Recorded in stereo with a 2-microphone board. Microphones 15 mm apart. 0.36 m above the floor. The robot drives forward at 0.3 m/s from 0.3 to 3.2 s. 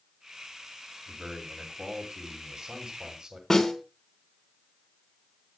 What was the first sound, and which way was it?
A man speaking, 45° right (ahead or behind).